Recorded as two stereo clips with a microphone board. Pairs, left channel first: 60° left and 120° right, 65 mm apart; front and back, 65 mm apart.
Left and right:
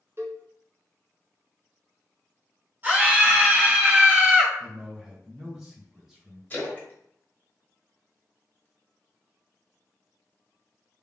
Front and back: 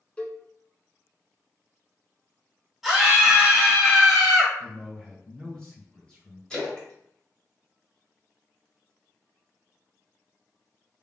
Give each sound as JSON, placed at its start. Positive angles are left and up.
{"t": 0.2, "sound": "a cowbell", "azimuth_deg": -75, "distance_m": 0.9}
{"t": 2.8, "sound": "a scream", "azimuth_deg": -95, "distance_m": 1.6}
{"t": 4.6, "sound": "a man speaking", "azimuth_deg": -45, "distance_m": 1.5}
{"t": 6.5, "sound": "a splash", "azimuth_deg": 55, "distance_m": 1.3}